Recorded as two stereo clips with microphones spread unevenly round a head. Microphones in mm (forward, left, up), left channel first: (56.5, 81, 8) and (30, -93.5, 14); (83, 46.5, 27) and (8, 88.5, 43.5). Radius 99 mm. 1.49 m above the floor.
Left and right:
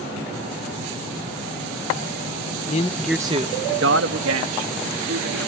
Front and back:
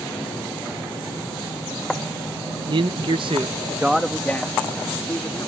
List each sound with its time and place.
2.7 s a man speaking: 135° left; by 5.5 s 105° right